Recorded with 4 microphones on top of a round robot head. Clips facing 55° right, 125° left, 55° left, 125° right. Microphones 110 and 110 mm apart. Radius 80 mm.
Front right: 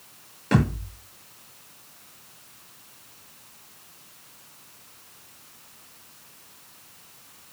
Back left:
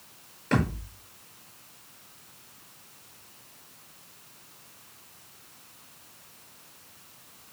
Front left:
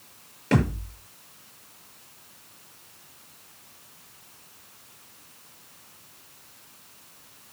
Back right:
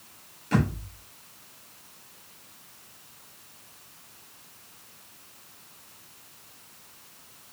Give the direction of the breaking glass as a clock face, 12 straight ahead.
No breaking glass in this recording.